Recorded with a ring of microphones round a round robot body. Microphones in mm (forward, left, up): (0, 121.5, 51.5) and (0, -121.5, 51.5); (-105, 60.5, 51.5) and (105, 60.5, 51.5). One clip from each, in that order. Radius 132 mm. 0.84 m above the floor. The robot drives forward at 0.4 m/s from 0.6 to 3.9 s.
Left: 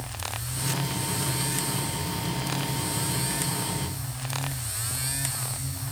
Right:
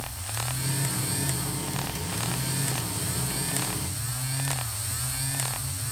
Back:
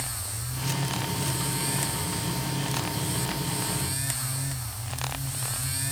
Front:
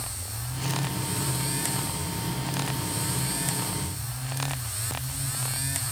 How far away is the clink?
I don't hear a clink.